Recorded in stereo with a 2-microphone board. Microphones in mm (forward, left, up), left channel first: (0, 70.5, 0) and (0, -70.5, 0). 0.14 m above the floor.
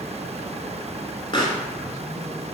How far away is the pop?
About 0.9 m.